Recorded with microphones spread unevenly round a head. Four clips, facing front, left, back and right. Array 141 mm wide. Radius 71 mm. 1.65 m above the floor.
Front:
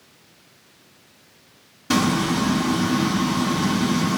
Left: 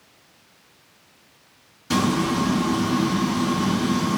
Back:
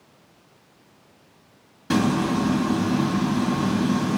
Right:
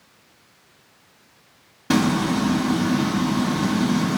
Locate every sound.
1.9 s frying: 90° right, 2.5 m